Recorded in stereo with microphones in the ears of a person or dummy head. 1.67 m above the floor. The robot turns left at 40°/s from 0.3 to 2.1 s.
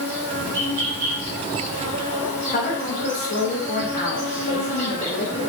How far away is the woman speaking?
About 1.0 m.